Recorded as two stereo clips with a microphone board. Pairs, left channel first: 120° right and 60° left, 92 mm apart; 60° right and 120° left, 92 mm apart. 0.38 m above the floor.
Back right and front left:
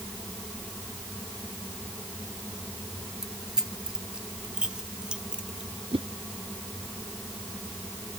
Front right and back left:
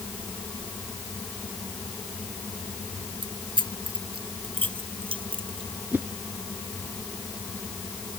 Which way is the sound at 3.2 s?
145° left.